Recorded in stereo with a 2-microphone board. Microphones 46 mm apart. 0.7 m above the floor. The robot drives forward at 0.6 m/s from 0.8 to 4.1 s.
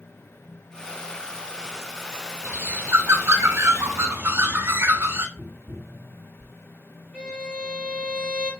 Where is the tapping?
60° right (ahead or behind), 1.8 m.